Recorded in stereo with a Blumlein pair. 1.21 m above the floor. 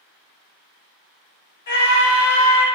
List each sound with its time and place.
1.7 s a scream: 55° left, 1.2 m